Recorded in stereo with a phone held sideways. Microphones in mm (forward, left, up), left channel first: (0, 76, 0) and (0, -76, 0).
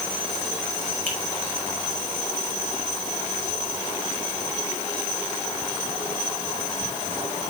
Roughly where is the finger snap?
Right.